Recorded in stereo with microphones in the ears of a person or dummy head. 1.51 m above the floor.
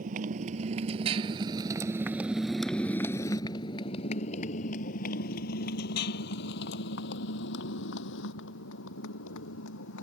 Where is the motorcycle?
50° right (ahead or behind); by 10.0 s 70° left (ahead or behind).